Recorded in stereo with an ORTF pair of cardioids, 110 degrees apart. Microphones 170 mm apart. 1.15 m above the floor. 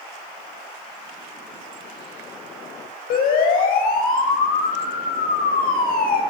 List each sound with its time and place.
3.1 s a siren: 65° left, 7.5 m